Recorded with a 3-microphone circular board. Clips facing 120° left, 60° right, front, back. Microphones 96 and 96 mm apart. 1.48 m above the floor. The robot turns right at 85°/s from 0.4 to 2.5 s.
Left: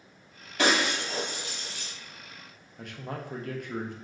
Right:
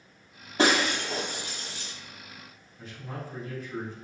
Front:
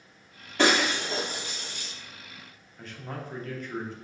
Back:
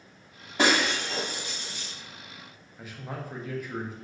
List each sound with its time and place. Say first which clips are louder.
0.6 s breaking glass: right 2 dB, front 1 dB; 105° right, 0.9 m; by 1.9 s 10° left, 0.9 m
2.8 s a man speaking: left 2 dB, even; 100° left, 0.6 m